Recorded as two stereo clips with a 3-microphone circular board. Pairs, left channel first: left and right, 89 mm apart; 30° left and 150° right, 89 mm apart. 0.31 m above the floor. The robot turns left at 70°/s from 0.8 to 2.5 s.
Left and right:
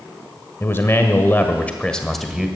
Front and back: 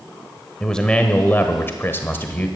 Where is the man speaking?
100° left, 1.2 m; by 2.5 s 15° right, 1.2 m.